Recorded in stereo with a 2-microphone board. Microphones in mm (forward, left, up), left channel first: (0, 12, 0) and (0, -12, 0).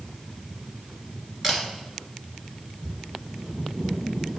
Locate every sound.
1.4 s a camera shutter: 20° right (ahead or behind), 1.6 m